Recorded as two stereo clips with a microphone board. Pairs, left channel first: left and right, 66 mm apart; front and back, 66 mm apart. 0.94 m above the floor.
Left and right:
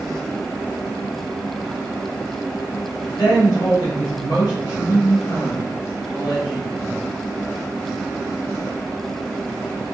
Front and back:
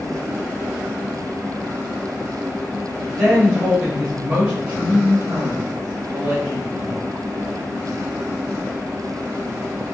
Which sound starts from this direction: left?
A woman speaking, at 3.2 s.